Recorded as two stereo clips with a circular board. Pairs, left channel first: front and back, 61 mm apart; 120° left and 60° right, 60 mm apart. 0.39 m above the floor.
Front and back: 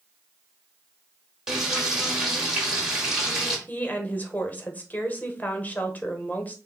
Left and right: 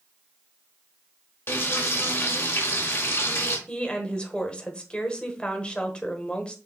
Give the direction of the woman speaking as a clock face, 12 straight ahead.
10 o'clock.